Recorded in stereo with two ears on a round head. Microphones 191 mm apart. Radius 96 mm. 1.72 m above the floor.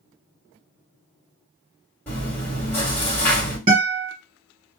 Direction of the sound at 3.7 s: 35° right (ahead or behind).